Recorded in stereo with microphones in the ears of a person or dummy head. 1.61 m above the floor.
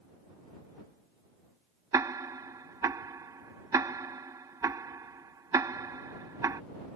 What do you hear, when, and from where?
1.9 s ticking: 15° right (ahead or behind)